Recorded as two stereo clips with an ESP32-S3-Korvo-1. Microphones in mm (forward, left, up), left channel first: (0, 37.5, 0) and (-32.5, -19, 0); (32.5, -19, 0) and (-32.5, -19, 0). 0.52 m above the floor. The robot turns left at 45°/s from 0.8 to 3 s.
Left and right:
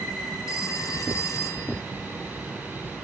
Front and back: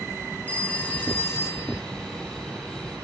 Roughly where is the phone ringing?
Ahead left.